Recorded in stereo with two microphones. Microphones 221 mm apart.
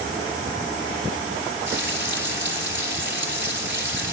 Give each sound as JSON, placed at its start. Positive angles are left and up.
{"t": 1.7, "sound": "frying", "side_deg": -60, "distance_m": 3.0}